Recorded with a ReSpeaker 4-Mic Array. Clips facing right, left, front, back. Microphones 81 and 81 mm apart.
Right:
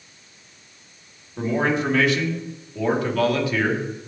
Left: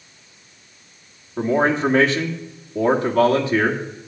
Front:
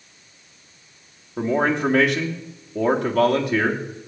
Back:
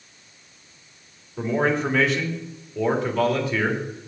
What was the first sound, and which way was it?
A man speaking, 30° left.